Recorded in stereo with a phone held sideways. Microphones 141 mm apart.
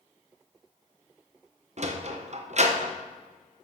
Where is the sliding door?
50° right (ahead or behind), 0.9 m.